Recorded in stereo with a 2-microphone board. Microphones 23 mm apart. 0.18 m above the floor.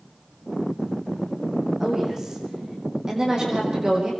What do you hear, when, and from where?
1.8 s a woman speaking: 15° right (ahead or behind), 7 m; by 4.1 s 30° right (ahead or behind), 7.5 m